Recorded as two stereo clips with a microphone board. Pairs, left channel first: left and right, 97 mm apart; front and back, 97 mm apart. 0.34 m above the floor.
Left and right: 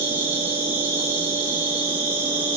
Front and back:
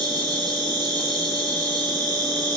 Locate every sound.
0.0 s an insect: 155° right, 2 m